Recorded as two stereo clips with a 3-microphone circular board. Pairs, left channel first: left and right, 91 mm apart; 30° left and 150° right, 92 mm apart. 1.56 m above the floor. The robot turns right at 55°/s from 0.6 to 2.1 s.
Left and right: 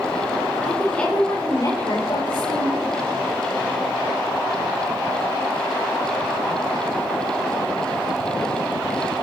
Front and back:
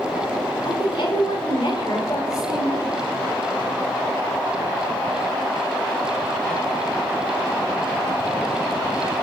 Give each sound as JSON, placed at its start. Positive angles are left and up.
{"t": 0.6, "sound": "a woman speaking", "azimuth_deg": -5, "distance_m": 5.5}